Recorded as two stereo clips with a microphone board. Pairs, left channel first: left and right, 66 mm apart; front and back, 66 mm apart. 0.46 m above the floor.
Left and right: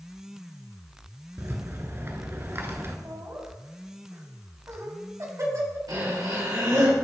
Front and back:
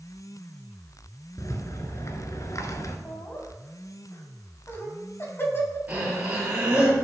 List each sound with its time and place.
1.4 s a rattle: 40° right, 1.1 m
3.0 s laughter: 55° right, 3 m
5.9 s breathing: 115° right, 3.5 m